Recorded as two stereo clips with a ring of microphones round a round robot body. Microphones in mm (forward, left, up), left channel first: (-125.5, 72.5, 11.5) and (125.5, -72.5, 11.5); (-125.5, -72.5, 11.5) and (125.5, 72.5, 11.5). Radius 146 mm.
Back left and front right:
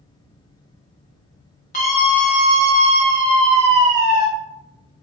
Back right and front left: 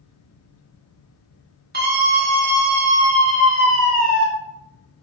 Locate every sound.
1.7 s a scream: 85° left, 1.7 m; by 4.3 s 35° right, 2.5 m